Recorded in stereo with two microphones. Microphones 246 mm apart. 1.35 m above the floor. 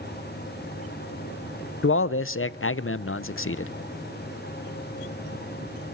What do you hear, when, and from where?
1.8 s a man speaking: 60° left (ahead or behind), 0.5 m